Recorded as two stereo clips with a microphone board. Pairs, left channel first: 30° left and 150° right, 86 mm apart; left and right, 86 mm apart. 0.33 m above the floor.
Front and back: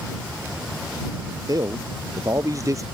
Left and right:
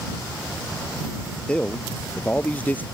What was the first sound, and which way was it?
A man speaking, 165° left.